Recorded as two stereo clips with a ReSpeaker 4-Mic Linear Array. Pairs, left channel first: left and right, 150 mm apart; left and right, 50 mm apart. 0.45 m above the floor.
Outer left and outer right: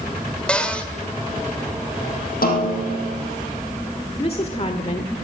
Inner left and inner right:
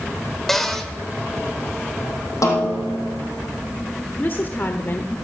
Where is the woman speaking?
45° left (ahead or behind), 1.2 m.